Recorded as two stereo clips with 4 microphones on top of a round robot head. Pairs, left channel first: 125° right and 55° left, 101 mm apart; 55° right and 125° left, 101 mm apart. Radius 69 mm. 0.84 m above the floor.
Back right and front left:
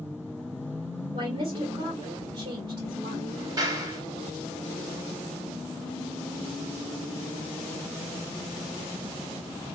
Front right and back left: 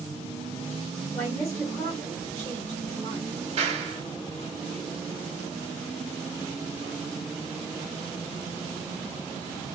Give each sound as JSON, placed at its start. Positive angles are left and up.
{"t": 1.1, "sound": "a woman speaking", "azimuth_deg": 30, "distance_m": 2.5}
{"t": 3.6, "sound": "a clap", "azimuth_deg": 110, "distance_m": 2.5}